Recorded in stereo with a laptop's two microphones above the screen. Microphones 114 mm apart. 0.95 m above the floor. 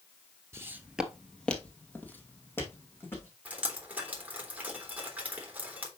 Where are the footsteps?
25° right (ahead or behind), 1.0 m; by 3.3 s 20° left (ahead or behind), 4 m.